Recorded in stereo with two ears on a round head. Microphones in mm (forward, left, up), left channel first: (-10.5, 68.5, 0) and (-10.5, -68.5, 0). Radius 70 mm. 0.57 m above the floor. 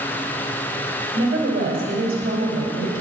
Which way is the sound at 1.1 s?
65° right (ahead or behind).